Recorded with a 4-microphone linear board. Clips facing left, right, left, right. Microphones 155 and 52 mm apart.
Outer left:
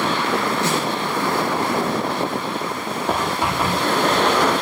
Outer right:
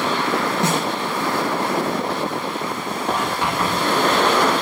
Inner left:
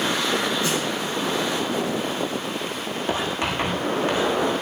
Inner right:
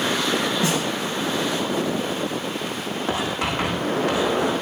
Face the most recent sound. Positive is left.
turn(degrees=-65)  # may be behind; listen again after turning